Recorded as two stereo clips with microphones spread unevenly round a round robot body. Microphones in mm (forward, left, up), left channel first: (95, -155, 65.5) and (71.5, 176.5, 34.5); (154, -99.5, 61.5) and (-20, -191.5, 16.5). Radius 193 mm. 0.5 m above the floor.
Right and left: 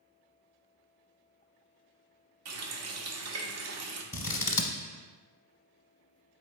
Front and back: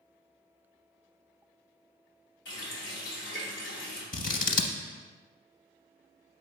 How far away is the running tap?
About 0.8 m.